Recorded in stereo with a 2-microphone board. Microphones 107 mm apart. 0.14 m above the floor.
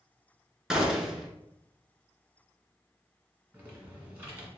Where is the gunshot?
5° right (ahead or behind), 0.7 m.